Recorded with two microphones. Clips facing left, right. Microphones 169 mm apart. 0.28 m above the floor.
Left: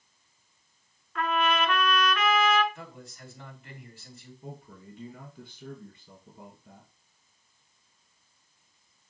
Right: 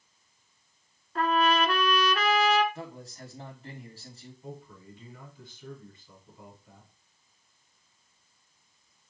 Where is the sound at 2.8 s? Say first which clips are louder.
Right 4 dB; 40° right (ahead or behind), 2.5 m.